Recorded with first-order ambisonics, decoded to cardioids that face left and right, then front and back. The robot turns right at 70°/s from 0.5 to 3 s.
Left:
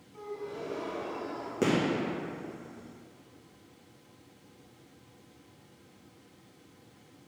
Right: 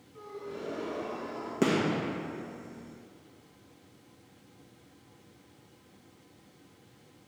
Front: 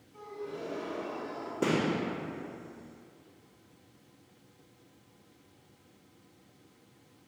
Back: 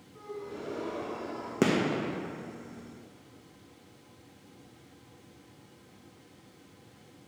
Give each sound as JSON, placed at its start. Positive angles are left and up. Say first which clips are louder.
{"t": 0.1, "sound": "a gasp", "louder": "left 2 dB, even", "azimuth_deg": 65, "distance_m": 2.0}
{"t": 1.6, "sound": "a gunshot", "louder": "even, back 2 dB", "azimuth_deg": -175, "distance_m": 1.2}